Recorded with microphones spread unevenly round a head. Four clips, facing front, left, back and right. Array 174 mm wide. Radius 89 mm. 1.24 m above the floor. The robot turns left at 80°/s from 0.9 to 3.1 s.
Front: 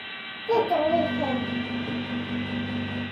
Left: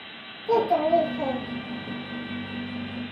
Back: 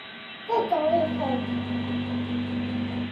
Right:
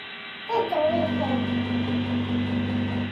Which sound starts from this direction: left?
A child speaking, at 0.5 s.